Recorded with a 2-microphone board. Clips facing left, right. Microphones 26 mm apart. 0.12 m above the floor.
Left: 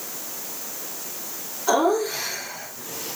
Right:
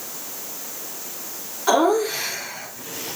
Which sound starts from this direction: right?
Laughter, at 1.7 s.